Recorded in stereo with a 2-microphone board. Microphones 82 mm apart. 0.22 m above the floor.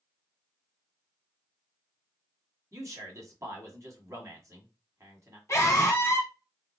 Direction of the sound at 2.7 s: 40° right (ahead or behind).